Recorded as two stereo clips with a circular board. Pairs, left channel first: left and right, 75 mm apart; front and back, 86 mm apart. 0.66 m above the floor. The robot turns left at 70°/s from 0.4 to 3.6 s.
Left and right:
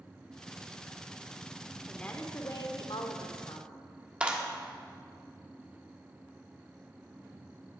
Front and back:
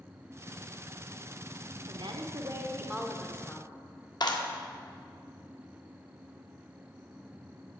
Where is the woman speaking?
175° left, 1.3 m; by 3.7 s 55° left, 1.3 m.